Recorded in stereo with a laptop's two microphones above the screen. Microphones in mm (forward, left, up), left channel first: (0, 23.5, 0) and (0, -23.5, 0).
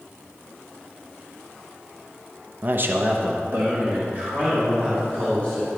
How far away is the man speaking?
About 0.6 m.